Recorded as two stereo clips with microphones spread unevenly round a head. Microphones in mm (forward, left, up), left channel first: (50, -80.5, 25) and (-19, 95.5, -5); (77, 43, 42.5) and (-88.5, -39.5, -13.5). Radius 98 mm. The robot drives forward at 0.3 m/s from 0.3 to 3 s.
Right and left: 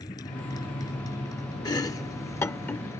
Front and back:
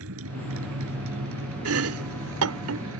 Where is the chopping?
135° right; by 2.9 s 145° right.